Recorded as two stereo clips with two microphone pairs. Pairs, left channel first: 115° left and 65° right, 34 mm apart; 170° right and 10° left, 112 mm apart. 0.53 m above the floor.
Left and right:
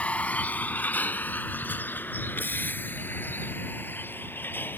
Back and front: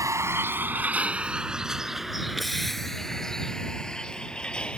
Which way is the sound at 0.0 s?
70° left.